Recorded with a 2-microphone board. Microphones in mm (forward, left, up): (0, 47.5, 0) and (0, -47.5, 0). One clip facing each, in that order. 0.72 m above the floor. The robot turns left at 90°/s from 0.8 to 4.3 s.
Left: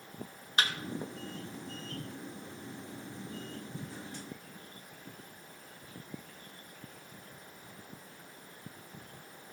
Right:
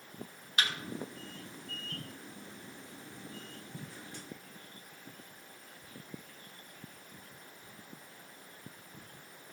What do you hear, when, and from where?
0.6 s a thud: 35° left (ahead or behind), 1.4 m